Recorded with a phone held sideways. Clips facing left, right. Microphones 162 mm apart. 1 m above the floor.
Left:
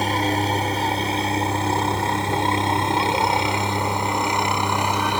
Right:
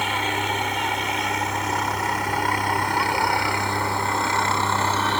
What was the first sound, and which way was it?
A helicopter, 40° left (ahead or behind).